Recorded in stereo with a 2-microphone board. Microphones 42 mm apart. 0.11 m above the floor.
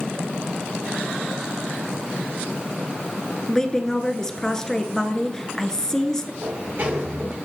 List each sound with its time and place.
3.5 s a woman speaking: 15° left (ahead or behind), 1.2 m
6.4 s a sliding door: 60° right (ahead or behind), 6 m